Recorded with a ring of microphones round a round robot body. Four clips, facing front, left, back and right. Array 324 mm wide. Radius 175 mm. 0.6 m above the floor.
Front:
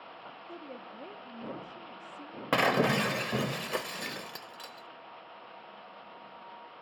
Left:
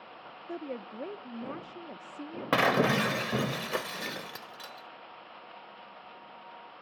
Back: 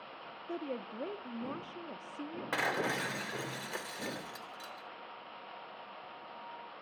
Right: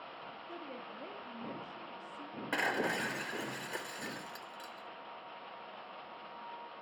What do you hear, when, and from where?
0.5 s a woman speaking: 125° left, 1.1 m
2.5 s breaking glass: 55° left, 0.8 m